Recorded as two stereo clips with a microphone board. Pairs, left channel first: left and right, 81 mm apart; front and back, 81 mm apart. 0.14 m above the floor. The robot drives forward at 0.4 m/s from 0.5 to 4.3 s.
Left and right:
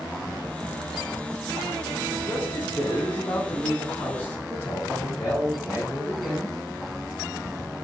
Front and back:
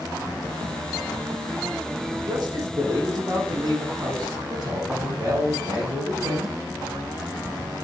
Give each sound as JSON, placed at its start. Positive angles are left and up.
{"t": 2.3, "sound": "a man speaking", "azimuth_deg": 150, "distance_m": 4.5}